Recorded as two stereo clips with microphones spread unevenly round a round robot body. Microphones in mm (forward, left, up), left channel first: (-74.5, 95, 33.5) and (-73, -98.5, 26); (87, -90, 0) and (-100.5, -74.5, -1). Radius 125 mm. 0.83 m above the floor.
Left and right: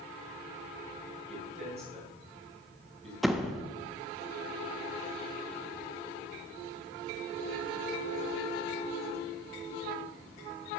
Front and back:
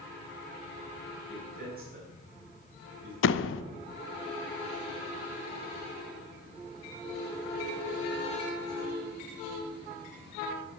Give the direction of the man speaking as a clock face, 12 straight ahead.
5 o'clock.